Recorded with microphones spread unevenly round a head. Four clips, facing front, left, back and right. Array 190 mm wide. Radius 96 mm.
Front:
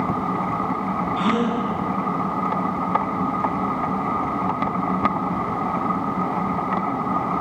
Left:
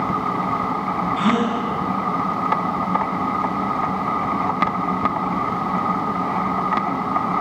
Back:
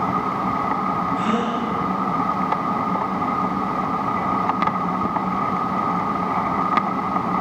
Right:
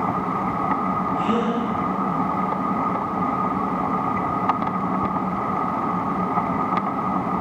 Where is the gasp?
85° left, 9 m.